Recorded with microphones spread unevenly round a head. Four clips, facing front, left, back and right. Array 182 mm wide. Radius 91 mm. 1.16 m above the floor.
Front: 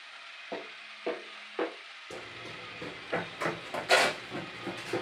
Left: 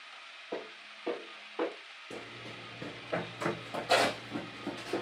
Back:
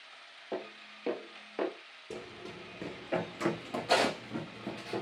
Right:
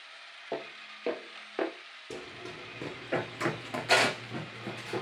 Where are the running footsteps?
125° right, 1.7 m; by 5.0 s 85° left, 1.1 m.